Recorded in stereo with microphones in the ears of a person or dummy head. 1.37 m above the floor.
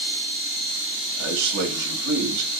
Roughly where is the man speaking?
Right.